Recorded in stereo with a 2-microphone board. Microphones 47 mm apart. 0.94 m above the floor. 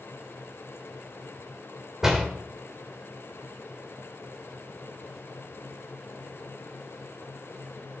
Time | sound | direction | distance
2.0 | a door slam | 10° right (ahead or behind) | 2.5 m